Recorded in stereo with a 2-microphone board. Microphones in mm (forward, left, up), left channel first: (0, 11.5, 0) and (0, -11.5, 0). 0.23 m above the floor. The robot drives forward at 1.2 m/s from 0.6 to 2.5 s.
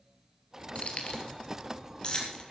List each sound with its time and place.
0.8 s keys jangling: 50° left (ahead or behind), 3.5 m; by 2.4 s 35° left (ahead or behind), 5 m